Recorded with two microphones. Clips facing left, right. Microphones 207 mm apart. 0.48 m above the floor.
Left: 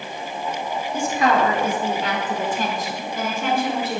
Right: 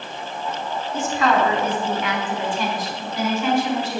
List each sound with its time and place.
0.9 s a woman speaking: 10° left (ahead or behind), 1.3 m; by 4.0 s 60° left (ahead or behind), 2 m